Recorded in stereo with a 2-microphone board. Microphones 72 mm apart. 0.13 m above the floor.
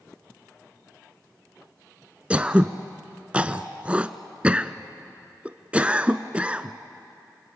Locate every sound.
2.3 s throat clearing: 20° right (ahead or behind), 0.7 m